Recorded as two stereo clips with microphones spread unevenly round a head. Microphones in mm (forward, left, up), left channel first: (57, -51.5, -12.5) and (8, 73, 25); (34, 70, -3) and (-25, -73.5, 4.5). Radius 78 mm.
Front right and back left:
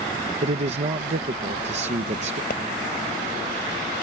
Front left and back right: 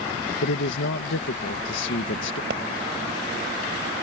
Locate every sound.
0.4 s a man speaking: 80° left
2.5 s a pop: 110° right